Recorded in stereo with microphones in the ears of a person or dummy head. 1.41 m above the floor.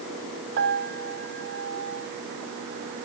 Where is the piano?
60° right (ahead or behind), 1.8 m.